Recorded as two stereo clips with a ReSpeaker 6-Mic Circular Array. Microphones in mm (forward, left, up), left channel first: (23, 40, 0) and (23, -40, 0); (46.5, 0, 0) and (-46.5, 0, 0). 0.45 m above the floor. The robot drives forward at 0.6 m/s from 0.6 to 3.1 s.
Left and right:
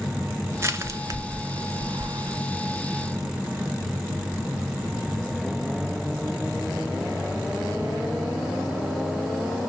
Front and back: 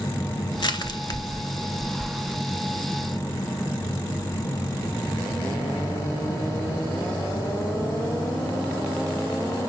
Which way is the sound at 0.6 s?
30° right.